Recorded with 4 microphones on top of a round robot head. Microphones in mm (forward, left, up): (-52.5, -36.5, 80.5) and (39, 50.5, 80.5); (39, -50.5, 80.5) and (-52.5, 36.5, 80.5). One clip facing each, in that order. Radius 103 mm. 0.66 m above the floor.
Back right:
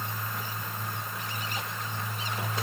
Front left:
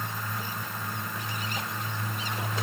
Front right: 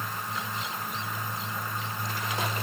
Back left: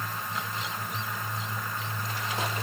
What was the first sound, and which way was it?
Only background noise.